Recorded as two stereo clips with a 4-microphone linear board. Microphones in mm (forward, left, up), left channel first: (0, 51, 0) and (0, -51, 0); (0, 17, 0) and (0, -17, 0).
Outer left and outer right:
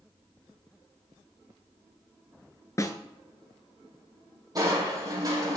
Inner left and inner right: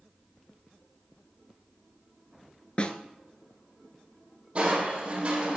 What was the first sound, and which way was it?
A snare drum, 30° left (ahead or behind).